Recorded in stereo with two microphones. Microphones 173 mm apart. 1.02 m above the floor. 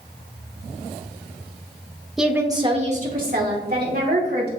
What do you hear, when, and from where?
2.2 s a woman speaking: centre (ahead or behind), 1.1 m; by 4.5 s 75° right (ahead or behind), 2.5 m